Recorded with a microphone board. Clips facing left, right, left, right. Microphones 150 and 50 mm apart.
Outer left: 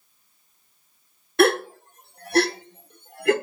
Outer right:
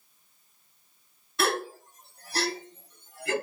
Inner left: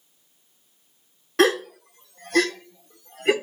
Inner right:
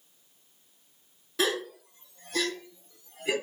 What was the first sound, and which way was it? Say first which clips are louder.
A gasp: outer left 10 dB, inner left 9 dB; 60° left (ahead or behind).